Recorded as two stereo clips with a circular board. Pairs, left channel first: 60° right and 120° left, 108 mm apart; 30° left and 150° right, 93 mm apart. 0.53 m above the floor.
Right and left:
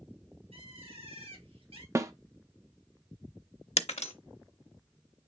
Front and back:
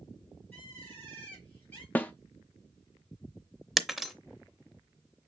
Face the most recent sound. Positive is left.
turn(degrees=-60)